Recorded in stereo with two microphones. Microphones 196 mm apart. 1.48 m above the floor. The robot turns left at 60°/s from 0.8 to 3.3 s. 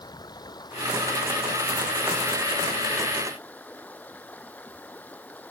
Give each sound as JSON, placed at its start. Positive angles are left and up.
{"t": 0.0, "sound": "running water", "azimuth_deg": 160}